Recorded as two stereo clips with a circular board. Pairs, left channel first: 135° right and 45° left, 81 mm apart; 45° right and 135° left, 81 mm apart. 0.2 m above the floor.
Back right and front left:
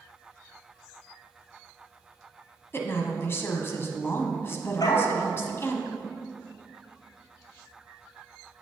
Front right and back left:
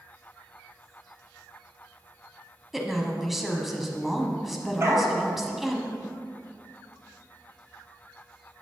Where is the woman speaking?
140° right, 1.1 m.